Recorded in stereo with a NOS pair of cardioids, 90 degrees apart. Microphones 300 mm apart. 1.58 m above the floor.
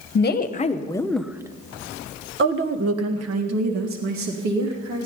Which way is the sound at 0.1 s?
35° left.